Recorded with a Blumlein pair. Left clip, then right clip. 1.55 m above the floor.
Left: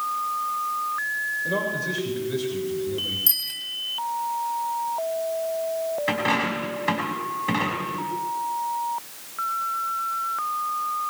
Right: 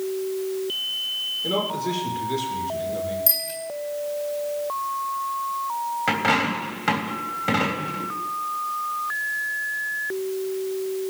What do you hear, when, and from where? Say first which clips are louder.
1.4 s a man speaking: right 1 dB; 50° right, 5.5 m
3.3 s a bicycle bell: even; 10° right, 3 m
6.1 s a dropped coin: right 4 dB; 35° right, 3.5 m